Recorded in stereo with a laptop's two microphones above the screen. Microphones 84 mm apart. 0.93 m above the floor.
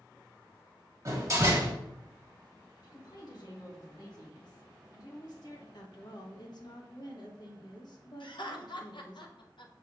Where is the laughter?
70° left (ahead or behind), 0.6 m.